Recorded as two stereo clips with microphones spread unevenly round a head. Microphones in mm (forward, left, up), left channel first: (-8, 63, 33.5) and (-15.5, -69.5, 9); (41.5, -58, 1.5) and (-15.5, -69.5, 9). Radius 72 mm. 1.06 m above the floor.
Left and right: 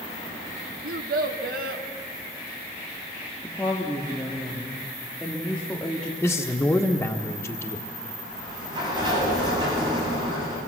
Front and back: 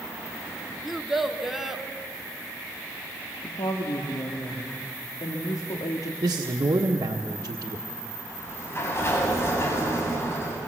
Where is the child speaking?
80° right, 1.7 m; by 1.8 s 85° right, 2.5 m.